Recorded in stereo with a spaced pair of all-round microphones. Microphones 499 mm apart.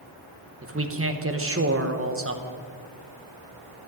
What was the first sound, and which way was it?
A man speaking, 25° right (ahead or behind).